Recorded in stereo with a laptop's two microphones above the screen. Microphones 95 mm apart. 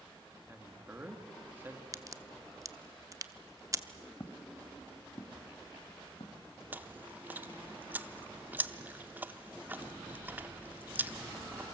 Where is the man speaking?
20° right (ahead or behind), 1.5 m.